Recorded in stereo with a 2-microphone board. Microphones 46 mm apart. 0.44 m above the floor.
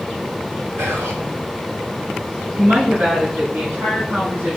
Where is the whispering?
65° right (ahead or behind), 2 m.